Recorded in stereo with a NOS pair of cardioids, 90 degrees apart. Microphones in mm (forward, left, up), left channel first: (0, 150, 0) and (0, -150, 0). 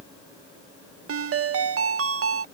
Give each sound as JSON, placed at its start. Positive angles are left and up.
{"t": 1.1, "sound": "a ringtone", "azimuth_deg": -50}